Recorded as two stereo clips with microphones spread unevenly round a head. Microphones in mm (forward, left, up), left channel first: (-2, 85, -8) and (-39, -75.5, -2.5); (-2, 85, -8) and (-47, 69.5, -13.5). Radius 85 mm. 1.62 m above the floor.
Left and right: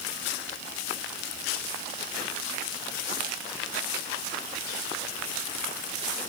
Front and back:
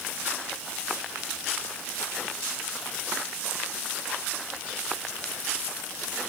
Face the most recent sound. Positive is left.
No sound to turn to.